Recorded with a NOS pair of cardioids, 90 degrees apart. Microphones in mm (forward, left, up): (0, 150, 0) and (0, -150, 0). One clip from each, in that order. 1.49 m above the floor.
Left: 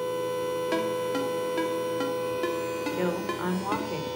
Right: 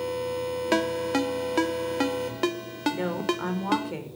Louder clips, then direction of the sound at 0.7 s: Right 6 dB; 50° right.